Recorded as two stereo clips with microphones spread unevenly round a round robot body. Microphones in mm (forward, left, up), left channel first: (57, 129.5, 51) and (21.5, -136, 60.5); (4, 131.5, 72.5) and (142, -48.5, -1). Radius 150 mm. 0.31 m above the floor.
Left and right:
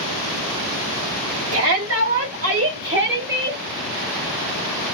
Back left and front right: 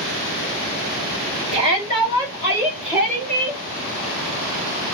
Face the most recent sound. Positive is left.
turn(degrees=-135)